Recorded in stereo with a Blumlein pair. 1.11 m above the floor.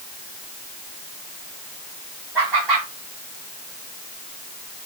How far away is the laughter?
About 4.5 m.